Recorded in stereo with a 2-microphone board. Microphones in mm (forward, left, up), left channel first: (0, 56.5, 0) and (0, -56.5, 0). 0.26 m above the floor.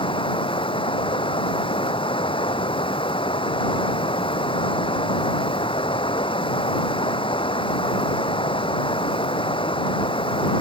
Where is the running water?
45° left (ahead or behind).